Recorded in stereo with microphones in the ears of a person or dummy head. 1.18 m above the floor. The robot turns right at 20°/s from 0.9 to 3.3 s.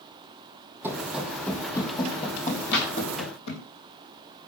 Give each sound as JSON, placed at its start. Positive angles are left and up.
{"t": 0.8, "sound": "running footsteps", "side_deg": -10, "distance_m": 3.0}
{"t": 2.7, "sound": "a clap", "side_deg": 60, "distance_m": 5.0}